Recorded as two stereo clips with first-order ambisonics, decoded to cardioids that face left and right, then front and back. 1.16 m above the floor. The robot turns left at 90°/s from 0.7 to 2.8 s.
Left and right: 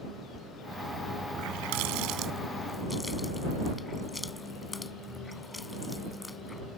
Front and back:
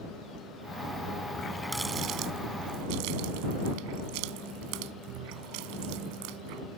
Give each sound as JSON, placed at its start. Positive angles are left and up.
{"t": 1.3, "sound": "a running tap", "azimuth_deg": -55}